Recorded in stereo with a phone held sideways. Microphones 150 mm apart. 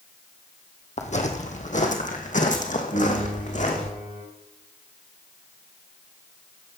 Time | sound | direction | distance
1.0 | footsteps | 50° left (ahead or behind) | 1.6 m
2.9 | a piano | 85° left | 7.5 m